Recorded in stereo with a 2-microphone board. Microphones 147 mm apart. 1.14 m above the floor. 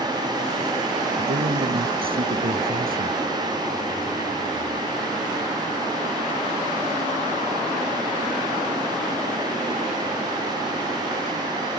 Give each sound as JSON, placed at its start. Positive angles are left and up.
{"t": 1.2, "sound": "a man speaking", "side_deg": -80}